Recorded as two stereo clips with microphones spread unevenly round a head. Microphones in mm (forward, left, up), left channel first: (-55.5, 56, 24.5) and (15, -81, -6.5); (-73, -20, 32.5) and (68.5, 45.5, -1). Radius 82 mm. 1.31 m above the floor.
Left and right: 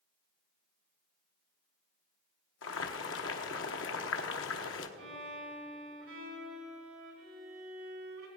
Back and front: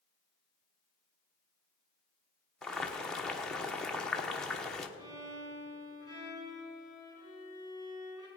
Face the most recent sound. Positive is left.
turn(degrees=-45)